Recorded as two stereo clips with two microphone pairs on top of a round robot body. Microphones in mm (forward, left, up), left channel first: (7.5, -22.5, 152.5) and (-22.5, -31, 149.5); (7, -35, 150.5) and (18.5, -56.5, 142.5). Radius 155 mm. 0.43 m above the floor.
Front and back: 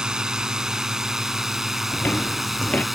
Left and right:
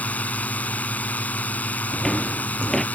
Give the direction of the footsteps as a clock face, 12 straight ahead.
10 o'clock.